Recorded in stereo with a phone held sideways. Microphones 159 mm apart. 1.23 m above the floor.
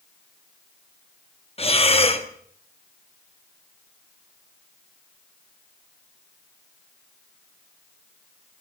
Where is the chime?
No chime in this recording.